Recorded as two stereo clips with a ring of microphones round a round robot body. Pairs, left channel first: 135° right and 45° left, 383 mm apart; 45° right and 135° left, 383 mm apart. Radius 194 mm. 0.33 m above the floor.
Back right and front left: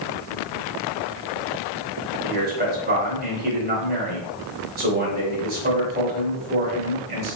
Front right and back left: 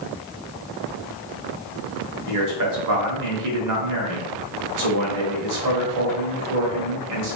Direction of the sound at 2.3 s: 105° left.